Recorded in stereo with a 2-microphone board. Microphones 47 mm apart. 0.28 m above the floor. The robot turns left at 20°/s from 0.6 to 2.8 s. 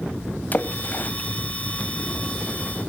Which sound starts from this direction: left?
A splash, at 0.5 s.